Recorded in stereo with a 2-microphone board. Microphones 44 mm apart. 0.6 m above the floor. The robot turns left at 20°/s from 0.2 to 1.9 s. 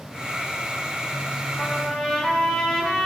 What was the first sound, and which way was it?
A trumpet, 10° left (ahead or behind).